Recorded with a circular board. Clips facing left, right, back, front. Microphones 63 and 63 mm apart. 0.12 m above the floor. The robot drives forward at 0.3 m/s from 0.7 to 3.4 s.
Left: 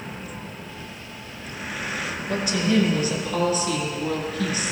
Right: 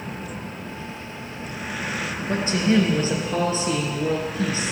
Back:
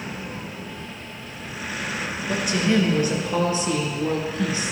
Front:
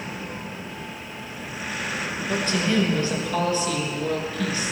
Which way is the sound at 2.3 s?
110° right.